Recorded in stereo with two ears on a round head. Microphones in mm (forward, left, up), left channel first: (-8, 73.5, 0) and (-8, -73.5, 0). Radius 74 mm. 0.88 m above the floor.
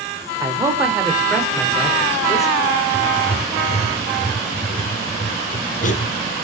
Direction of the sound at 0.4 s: 20° right (ahead or behind).